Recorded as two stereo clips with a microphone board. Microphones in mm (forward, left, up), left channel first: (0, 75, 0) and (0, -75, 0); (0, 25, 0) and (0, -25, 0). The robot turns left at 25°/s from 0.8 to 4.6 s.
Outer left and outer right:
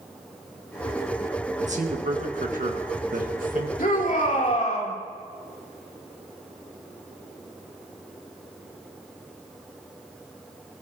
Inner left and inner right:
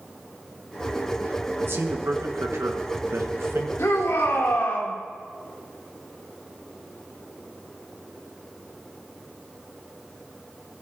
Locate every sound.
1.6 s a man speaking: 60° right, 1.7 m; by 3.7 s 110° right, 1.7 m
3.8 s a shout: 75° left (ahead or behind), 3 m; by 4.9 s 55° left (ahead or behind), 3 m